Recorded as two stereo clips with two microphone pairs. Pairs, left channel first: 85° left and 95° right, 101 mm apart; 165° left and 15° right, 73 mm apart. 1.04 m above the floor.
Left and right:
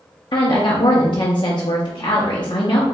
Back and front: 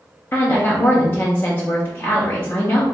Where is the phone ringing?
I don't hear a phone ringing.